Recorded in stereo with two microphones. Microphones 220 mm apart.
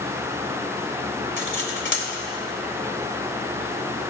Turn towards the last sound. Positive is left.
turn(degrees=60)  # may be behind; listen again after turning